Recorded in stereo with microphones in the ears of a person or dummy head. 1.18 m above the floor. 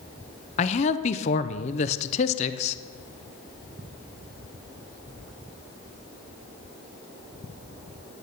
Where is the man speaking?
35° left (ahead or behind), 0.6 m.